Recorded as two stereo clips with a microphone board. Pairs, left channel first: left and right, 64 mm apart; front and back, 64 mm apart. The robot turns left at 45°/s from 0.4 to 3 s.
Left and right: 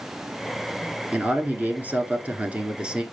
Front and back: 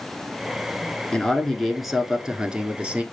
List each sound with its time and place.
1.1 s a man speaking: 60° right, 1.2 m; by 3.0 s 145° right, 1.2 m